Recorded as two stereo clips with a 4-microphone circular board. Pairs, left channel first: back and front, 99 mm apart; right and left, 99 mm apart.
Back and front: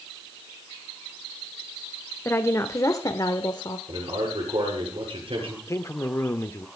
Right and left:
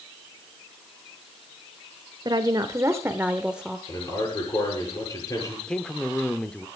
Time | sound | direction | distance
2.2 | a woman speaking | 120° left | 1.3 m
3.9 | a man speaking | 30° right | 9.5 m
5.7 | a man speaking | 160° right | 1.1 m